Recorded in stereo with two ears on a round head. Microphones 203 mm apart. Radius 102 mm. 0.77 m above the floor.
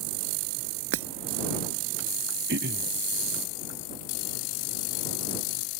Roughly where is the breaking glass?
Right.